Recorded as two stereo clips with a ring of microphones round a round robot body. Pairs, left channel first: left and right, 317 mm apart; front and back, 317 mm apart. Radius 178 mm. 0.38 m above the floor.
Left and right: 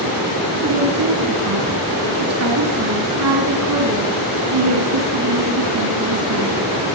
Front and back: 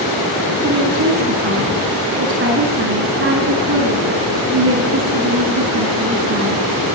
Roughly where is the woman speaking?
Behind right.